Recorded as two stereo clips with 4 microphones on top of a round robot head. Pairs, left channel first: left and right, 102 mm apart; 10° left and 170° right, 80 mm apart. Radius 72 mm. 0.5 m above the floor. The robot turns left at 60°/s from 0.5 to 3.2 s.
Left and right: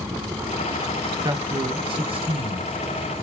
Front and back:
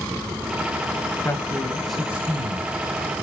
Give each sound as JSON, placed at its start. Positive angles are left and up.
{"t": 1.2, "sound": "a man speaking", "azimuth_deg": -40, "distance_m": 1.4}